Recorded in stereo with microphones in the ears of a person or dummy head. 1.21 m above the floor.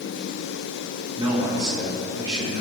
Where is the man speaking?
20° right (ahead or behind), 4.5 m.